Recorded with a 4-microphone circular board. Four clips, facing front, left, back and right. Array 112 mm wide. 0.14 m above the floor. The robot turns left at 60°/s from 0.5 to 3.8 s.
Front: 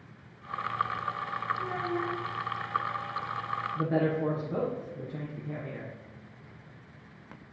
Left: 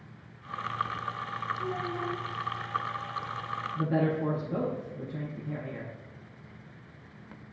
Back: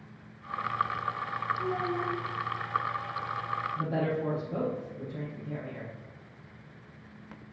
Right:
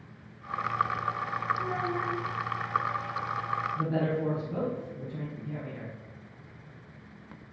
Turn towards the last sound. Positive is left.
turn(degrees=20)